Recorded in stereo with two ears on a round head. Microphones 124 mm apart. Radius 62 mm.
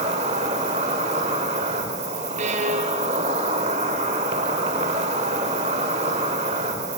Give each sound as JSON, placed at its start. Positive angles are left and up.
{"t": 0.0, "sound": "an insect", "side_deg": -50, "distance_m": 1.6}
{"t": 2.4, "sound": "a violin", "side_deg": -55, "distance_m": 2.0}